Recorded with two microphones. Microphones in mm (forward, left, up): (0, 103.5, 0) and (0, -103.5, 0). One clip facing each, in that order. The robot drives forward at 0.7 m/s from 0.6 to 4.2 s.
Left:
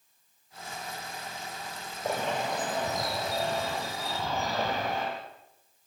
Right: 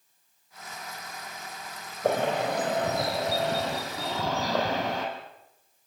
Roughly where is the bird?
Right.